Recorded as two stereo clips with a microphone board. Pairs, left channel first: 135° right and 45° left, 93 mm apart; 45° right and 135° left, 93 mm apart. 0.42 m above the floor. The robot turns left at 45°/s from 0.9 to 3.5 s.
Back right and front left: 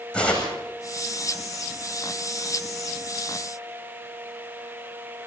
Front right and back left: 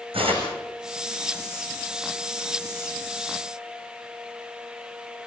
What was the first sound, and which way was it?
Tearing paper, 145° left.